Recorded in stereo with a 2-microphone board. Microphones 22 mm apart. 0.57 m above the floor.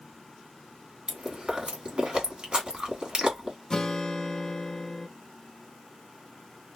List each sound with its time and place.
1.1 s chewing: 40° right (ahead or behind), 1.3 m
3.7 s a guitar: 30° left (ahead or behind), 0.5 m